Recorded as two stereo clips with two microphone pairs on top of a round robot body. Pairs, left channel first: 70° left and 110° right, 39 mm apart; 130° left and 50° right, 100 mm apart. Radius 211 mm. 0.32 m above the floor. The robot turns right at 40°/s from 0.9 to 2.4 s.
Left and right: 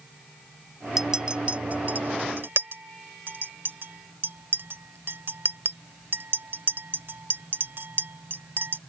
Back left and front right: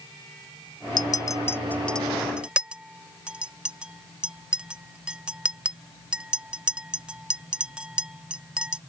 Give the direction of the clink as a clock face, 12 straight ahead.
6 o'clock.